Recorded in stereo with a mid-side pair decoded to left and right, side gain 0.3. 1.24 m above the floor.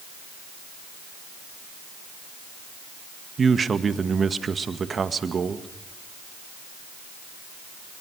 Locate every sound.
3.4 s a man speaking: 55° right, 2.0 m